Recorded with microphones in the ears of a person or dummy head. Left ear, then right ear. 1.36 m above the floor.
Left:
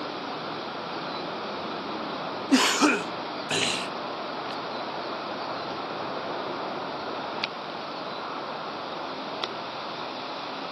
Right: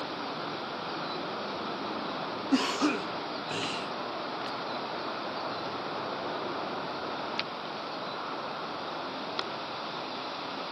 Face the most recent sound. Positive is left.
turn(degrees=35)  # may be behind; listen again after turning